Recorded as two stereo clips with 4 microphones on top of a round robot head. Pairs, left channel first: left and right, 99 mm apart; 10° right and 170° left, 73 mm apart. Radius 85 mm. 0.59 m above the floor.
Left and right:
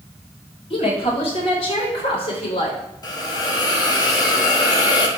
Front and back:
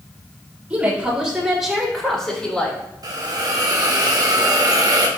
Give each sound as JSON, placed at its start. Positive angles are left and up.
{"t": 0.7, "sound": "a woman speaking", "azimuth_deg": 105, "distance_m": 3.0}
{"t": 3.0, "sound": "a hiss", "azimuth_deg": 140, "distance_m": 1.3}